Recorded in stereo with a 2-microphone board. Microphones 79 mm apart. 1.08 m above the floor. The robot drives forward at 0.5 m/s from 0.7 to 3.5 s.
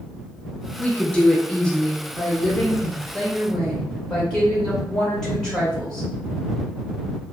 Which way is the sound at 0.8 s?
15° left (ahead or behind).